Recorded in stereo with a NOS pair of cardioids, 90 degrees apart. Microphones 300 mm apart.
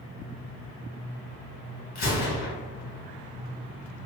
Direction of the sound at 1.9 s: 65° left.